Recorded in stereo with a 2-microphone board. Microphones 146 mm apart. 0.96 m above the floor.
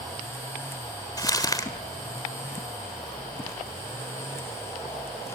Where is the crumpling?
25° left (ahead or behind), 1.7 m.